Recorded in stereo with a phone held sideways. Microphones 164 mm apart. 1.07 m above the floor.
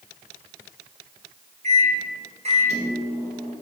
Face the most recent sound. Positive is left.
turn(degrees=-45)  # may be behind; listen again after turning